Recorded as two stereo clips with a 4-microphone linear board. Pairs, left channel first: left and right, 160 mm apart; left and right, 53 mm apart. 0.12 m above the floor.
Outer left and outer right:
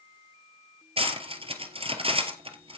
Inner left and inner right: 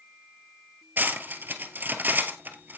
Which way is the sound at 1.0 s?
35° right (ahead or behind).